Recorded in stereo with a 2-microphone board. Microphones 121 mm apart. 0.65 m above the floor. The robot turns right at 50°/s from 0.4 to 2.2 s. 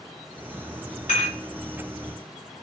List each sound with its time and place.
1.1 s dishes clattering: 80° left, 2.5 m; by 1.4 s 75° left (ahead or behind), 2.5 m